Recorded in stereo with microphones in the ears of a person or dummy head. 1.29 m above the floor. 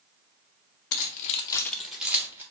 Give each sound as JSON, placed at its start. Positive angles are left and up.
{"t": 0.9, "sound": "keys jangling", "side_deg": 55, "distance_m": 0.6}